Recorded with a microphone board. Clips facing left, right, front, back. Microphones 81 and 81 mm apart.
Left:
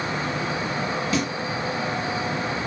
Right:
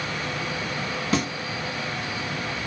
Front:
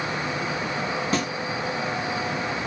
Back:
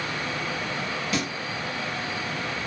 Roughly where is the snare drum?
Ahead right.